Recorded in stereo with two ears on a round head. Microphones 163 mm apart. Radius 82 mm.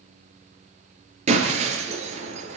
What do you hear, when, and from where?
1.3 s breaking glass: 40° right (ahead or behind), 5 m